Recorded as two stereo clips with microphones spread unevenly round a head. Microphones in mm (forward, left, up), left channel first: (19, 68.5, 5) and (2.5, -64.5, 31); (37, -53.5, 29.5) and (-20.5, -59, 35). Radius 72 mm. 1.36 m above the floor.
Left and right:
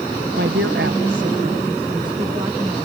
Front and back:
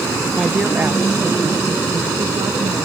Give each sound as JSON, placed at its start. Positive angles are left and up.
{"t": 0.4, "sound": "a woman speaking", "azimuth_deg": -95}